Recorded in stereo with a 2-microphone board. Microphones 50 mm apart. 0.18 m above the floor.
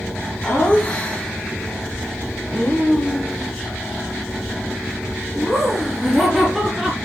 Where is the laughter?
25° left (ahead or behind), 1.6 m; by 7.0 s 5° right (ahead or behind), 3.5 m.